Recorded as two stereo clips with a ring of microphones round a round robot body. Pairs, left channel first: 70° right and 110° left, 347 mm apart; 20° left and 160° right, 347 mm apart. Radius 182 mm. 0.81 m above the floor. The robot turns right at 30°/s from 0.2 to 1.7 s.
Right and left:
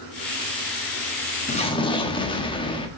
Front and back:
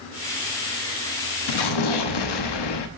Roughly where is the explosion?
Ahead.